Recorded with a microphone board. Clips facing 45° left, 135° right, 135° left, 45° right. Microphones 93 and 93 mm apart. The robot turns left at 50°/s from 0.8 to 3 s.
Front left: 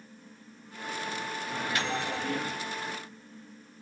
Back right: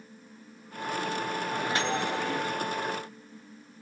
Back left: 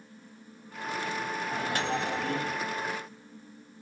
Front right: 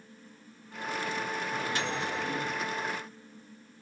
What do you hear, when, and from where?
1.5 s a microwave: 175° right, 0.9 m; by 2.6 s 130° left, 0.9 m